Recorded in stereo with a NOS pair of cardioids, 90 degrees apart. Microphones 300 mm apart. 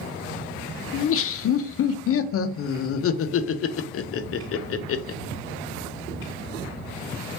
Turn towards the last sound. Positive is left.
turn(degrees=50)